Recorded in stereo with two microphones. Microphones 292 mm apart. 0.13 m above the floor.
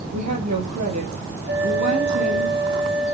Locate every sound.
0.1 s a woman speaking: 70° right (ahead or behind), 4.5 m
1.5 s a flute: 35° right (ahead or behind), 2 m